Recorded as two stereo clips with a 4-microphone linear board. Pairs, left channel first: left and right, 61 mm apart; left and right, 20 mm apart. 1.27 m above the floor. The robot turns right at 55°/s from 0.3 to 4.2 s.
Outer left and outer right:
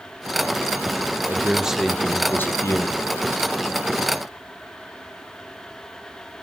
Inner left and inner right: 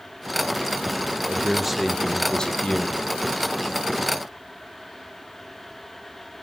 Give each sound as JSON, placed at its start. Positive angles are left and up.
{"t": 1.3, "sound": "a man speaking", "azimuth_deg": -30, "distance_m": 0.8}